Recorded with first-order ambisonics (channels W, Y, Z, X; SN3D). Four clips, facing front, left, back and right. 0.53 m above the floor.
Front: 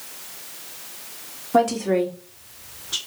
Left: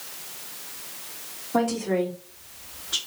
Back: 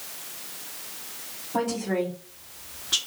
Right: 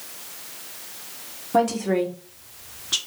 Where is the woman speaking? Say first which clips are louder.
Right 3 dB, front 7 dB; 30° right, 1.1 m; by 3.0 s 115° right, 0.9 m.